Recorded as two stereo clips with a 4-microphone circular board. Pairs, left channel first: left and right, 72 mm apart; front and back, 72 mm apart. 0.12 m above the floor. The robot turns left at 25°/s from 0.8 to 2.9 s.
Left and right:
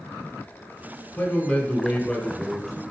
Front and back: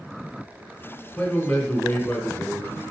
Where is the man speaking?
65° left, 1.2 m; by 2.8 s 25° left, 1.2 m.